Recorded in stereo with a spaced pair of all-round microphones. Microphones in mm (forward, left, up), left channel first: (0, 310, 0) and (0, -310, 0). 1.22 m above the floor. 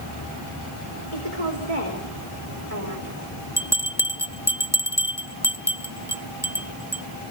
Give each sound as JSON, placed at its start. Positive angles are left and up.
{"t": 1.1, "sound": "a woman speaking", "side_deg": -60, "distance_m": 3.5}
{"t": 3.6, "sound": "a bell", "side_deg": -5, "distance_m": 0.8}